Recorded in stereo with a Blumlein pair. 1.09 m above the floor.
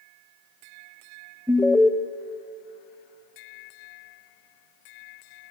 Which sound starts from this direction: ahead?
An alarm, at 1.5 s.